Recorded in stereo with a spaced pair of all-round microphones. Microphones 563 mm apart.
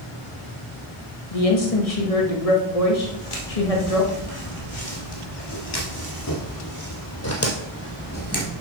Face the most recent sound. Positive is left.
turn(degrees=15)  # may be behind; listen again after turning